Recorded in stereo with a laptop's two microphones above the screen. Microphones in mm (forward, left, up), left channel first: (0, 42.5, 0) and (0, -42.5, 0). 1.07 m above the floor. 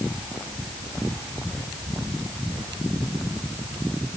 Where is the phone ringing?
I don't hear a phone ringing.